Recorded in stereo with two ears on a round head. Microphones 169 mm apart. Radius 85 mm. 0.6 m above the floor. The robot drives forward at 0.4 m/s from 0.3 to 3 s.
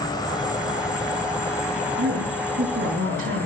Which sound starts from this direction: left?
An insect, at 0.0 s.